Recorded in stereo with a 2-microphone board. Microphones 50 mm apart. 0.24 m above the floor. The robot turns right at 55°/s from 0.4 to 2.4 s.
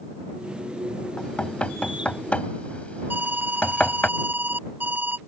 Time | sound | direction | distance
1.2 | knocking | 15° left (ahead or behind) | ?
3.1 | an alarm | 40° right (ahead or behind) | ?